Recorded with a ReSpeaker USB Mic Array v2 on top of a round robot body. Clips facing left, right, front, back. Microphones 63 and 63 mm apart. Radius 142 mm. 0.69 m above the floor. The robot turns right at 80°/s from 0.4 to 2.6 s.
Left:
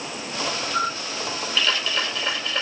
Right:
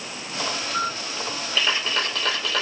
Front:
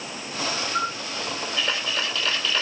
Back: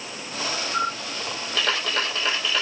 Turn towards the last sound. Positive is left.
turn(degrees=-95)